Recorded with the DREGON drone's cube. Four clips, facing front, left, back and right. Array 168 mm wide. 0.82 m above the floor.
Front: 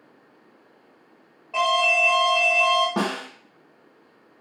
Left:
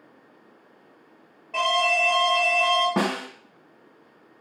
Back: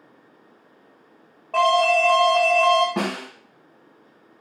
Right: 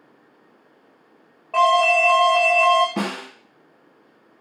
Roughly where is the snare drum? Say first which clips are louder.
Left 2 dB, even; left.